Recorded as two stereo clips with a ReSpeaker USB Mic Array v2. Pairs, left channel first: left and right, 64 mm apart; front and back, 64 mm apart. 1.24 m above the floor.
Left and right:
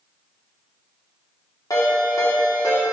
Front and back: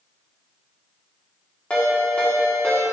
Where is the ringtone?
70° left, 2 m.